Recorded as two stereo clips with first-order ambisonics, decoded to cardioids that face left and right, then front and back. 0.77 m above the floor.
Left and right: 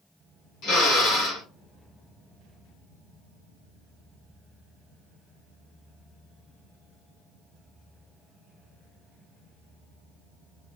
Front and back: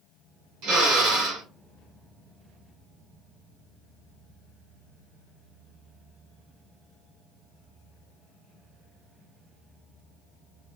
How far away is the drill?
About 3 m.